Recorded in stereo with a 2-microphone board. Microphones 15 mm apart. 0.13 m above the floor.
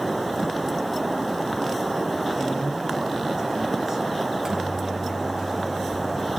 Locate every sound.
2.4 s a man speaking: 35° right (ahead or behind), 7 m
4.2 s a microwave: 35° right (ahead or behind), 2.5 m